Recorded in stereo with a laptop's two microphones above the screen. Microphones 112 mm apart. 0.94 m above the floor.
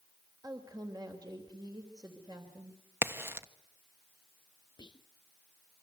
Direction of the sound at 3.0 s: 20° right (ahead or behind).